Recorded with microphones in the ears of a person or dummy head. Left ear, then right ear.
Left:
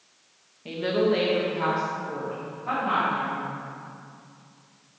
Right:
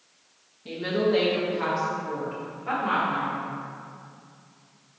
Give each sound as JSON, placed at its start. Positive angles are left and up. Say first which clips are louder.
{"t": 0.7, "sound": "a woman speaking", "louder": "left 1 dB", "side_deg": 25, "distance_m": 1.1}